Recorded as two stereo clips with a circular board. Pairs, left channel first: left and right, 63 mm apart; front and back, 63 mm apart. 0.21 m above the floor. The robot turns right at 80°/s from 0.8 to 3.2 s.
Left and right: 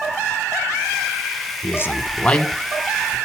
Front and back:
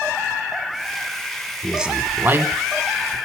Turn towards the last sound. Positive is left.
turn(degrees=-140)